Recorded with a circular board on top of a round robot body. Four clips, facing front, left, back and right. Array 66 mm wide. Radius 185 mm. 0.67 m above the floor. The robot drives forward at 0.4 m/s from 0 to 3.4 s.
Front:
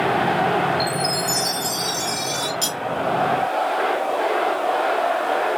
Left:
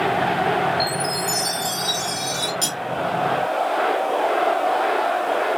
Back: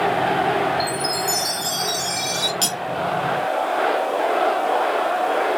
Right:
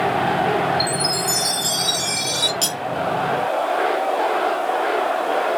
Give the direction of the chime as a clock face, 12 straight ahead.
3 o'clock.